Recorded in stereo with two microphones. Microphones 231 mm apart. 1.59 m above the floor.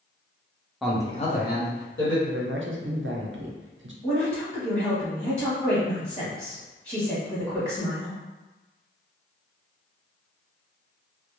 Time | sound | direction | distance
0.8 | a man speaking | centre (ahead or behind) | 0.6 m
2.3 | a man speaking | 65° right (ahead or behind) | 0.5 m
4.0 | a woman speaking | 30° left (ahead or behind) | 1.0 m